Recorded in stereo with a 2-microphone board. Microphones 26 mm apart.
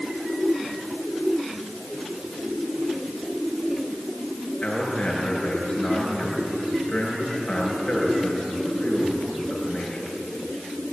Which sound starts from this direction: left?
A man speaking, at 4.6 s.